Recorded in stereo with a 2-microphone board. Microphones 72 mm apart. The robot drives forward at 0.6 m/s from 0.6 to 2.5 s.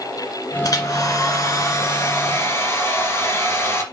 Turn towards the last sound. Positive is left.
turn(degrees=35)  # may be behind; listen again after turning